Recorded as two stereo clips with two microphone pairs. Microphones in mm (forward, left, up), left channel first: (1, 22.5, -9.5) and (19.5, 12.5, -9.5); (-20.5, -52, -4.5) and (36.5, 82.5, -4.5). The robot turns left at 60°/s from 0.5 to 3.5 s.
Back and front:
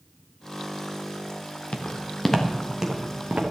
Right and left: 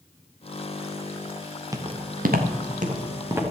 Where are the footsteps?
135° left, 2 m; by 3.4 s 10° right, 4 m.